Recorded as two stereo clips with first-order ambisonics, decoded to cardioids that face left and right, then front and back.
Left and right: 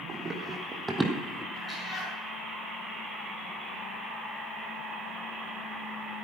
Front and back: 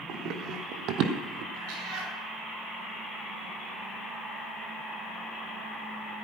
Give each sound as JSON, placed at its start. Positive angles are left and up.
{"t": 0.1, "sound": "running footsteps", "azimuth_deg": -155, "distance_m": 2.5}
{"t": 1.5, "sound": "a cat meowing", "azimuth_deg": 165, "distance_m": 6.5}